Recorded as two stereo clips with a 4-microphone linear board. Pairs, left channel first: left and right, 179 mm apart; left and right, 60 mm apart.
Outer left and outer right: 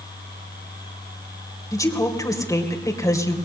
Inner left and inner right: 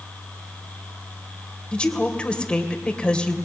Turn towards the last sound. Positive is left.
turn(degrees=20)  # may be behind; listen again after turning